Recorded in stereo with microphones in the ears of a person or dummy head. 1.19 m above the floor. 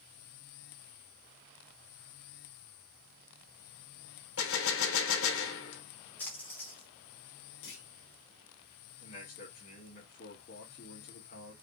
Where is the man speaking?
50° left (ahead or behind), 2.5 m.